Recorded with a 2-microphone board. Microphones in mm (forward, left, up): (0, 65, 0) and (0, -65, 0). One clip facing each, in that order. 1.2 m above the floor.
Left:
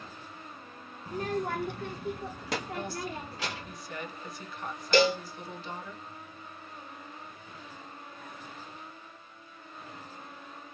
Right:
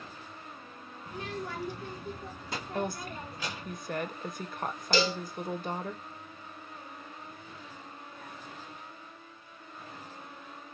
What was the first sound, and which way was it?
A child speaking, 35° left (ahead or behind).